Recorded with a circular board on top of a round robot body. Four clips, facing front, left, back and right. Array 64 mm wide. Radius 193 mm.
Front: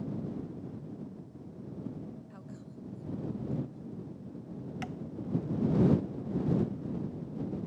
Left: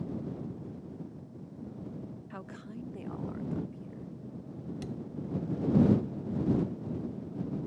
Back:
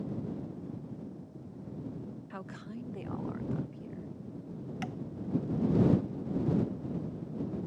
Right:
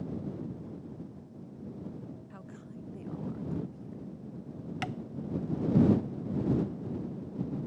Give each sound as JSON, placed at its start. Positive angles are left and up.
{"t": 2.3, "sound": "a woman speaking", "azimuth_deg": 145}
{"t": 4.8, "sound": "tapping", "azimuth_deg": -90}